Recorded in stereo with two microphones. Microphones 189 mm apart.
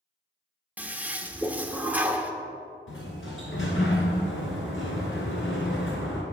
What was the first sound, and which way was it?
A toilet flushing, 10° right (ahead or behind).